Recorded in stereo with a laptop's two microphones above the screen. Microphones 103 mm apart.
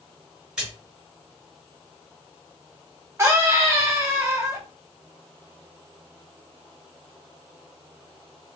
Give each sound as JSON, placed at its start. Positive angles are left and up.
{"t": 0.6, "sound": "a splash", "side_deg": -10, "distance_m": 2.0}
{"t": 3.2, "sound": "a scream", "side_deg": -25, "distance_m": 0.7}